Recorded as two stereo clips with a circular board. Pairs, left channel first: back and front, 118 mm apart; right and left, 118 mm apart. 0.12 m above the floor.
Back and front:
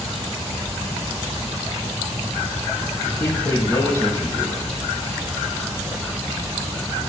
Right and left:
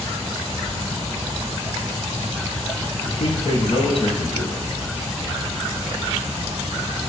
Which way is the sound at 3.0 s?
110° right.